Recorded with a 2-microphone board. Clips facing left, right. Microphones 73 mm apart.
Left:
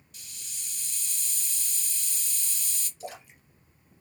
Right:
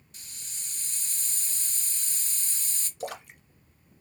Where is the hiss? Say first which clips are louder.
Even; 35° right (ahead or behind), 0.8 m.